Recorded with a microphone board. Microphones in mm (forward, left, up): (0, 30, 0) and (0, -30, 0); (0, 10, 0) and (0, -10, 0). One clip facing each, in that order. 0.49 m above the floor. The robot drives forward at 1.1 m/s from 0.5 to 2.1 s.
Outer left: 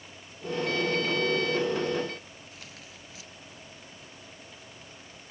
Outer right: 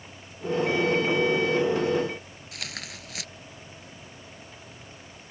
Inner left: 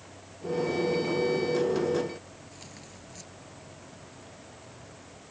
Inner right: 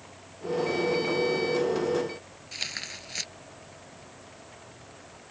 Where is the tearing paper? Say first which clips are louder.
Outer right 8 dB, inner right 13 dB; 85° right.